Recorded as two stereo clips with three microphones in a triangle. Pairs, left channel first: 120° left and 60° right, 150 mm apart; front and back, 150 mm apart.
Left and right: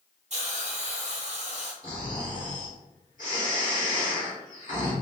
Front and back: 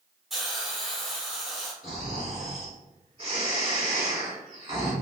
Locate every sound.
0.3 s a hiss: 90° right, 0.8 m
1.8 s snoring: 135° left, 1.7 m